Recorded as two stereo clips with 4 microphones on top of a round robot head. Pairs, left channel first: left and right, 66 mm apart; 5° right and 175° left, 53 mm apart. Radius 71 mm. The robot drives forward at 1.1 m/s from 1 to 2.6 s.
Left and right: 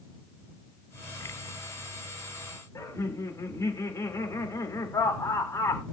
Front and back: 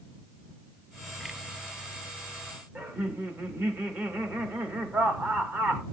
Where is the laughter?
125° left, 2.5 m.